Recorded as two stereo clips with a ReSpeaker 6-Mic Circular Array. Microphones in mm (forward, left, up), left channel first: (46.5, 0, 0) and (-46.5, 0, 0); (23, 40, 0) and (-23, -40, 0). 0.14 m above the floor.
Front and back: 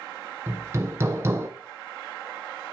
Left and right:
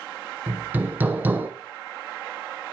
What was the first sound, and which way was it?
Hammering, 165° right.